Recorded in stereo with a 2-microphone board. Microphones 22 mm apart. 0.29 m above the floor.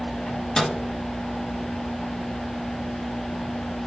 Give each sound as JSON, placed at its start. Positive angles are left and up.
{"t": 0.3, "sound": "a microwave", "side_deg": 40, "distance_m": 1.4}